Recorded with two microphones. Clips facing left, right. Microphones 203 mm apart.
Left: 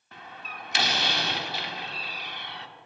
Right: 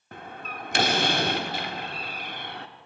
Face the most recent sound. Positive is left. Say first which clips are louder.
# right 5 dB
turn(degrees=-50)  # may be behind; listen again after turning